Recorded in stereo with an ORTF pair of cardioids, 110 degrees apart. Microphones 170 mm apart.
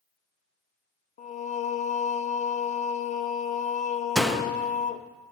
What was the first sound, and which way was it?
Singing, 45° left.